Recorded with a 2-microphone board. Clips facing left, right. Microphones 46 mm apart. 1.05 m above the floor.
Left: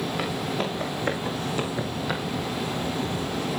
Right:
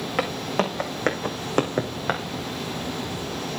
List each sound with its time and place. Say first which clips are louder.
0.2 s footsteps: right 3 dB; 75° right (ahead or behind), 4 m; by 2.2 s 45° right (ahead or behind), 2.5 m